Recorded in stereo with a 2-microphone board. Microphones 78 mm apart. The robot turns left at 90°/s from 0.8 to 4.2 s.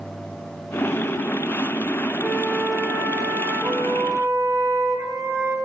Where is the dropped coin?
I don't hear a dropped coin.